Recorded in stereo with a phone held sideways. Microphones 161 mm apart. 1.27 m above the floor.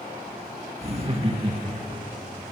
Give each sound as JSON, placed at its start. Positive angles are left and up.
{"t": 0.8, "sound": "laughter", "side_deg": -40, "distance_m": 2.0}